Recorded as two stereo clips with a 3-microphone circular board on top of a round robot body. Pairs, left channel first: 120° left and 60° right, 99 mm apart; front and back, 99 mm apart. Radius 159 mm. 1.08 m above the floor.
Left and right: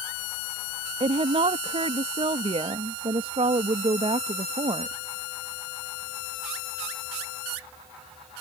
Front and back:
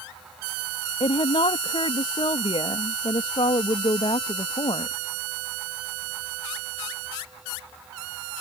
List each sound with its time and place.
1.0 s a woman speaking: 35° right